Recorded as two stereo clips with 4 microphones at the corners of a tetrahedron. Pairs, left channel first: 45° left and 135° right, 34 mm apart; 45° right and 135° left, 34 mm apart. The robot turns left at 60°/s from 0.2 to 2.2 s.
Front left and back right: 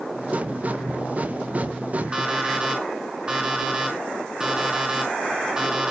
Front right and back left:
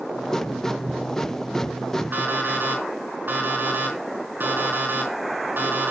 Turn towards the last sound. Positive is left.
turn(degrees=155)